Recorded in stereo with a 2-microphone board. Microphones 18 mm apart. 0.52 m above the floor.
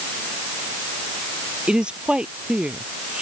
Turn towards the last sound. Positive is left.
turn(degrees=-75)  # may be behind; listen again after turning